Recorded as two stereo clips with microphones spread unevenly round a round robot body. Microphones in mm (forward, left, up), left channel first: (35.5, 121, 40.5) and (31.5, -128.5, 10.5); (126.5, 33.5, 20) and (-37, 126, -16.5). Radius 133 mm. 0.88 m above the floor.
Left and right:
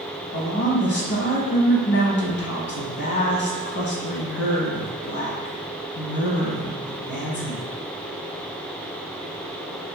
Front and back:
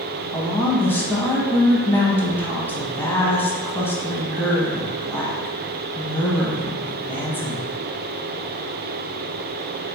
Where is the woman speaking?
60° left, 1.0 m.